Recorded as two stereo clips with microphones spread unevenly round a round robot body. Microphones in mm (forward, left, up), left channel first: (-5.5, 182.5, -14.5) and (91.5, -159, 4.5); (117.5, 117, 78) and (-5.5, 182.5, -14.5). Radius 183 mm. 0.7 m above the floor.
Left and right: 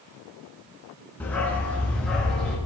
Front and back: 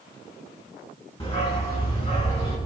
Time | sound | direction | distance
1.2 | a dog barking | 20° left | 3 m